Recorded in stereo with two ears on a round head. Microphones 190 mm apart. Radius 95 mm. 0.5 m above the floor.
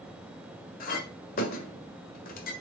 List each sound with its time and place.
0.8 s a clink: 40° left (ahead or behind), 1.5 m